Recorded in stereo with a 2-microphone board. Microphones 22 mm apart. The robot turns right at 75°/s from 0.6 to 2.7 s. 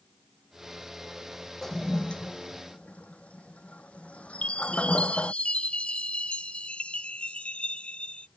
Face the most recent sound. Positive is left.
turn(degrees=65)  # may be behind; listen again after turning